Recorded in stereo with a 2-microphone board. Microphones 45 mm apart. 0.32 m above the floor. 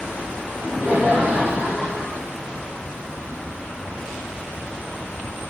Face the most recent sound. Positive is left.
turn(degrees=-5)  # may be behind; listen again after turning